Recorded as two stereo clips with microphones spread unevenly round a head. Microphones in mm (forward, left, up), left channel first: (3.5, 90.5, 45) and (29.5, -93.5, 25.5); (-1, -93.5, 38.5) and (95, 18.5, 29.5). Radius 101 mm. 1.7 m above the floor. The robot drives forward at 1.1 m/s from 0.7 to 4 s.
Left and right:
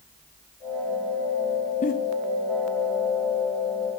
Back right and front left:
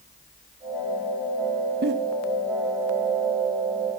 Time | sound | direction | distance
1.8 | a giggle | 50° left | 0.5 m